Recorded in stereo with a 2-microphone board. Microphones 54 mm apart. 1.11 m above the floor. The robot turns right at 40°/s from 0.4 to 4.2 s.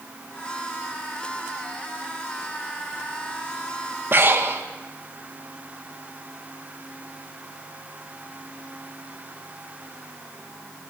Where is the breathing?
45° right (ahead or behind), 1.4 m.